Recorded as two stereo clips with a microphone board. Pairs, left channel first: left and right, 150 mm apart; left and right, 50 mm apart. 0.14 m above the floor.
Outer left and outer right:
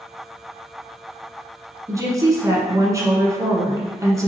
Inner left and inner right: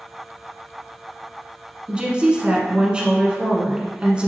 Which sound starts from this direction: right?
A woman speaking, at 1.9 s.